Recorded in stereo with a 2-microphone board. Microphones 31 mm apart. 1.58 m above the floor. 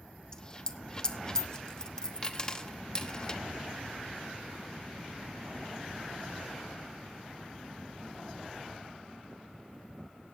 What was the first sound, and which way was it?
A dropped coin, 25° left (ahead or behind).